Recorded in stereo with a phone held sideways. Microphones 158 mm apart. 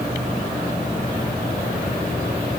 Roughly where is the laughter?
I don't hear laughter.